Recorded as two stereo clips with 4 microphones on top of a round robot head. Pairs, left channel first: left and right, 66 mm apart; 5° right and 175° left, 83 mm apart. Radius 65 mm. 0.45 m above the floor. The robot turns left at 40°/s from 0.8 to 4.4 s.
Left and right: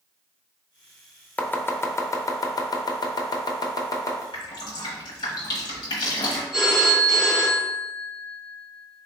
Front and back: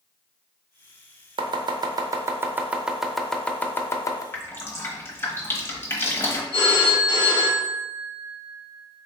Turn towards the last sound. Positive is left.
turn(degrees=0)